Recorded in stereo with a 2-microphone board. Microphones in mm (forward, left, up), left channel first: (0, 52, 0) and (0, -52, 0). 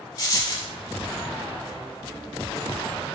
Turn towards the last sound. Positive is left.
turn(degrees=35)  # may be behind; listen again after turning